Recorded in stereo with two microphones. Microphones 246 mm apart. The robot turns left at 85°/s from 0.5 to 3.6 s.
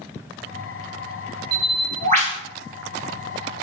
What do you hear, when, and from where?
1.5 s a bird: 80° right, 0.8 m; by 2.4 s 155° right, 0.8 m